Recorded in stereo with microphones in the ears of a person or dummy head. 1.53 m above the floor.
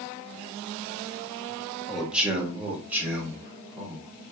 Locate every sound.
1.9 s a man speaking: 5° right (ahead or behind), 1.3 m; by 4.1 s 15° right (ahead or behind), 3 m